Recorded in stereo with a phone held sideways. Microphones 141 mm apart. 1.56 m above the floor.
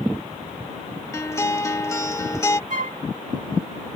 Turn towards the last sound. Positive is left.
turn(degrees=-65)  # may be behind; listen again after turning